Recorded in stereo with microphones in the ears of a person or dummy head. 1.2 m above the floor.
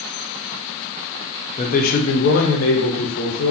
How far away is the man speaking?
About 0.6 m.